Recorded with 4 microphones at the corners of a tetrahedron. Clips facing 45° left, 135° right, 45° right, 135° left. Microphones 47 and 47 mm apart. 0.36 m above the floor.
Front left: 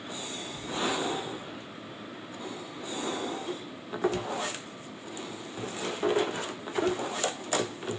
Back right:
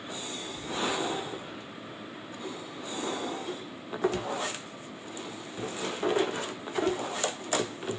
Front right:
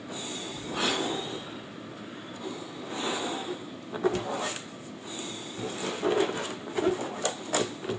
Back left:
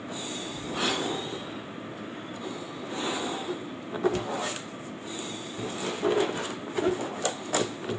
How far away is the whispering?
About 5.5 m.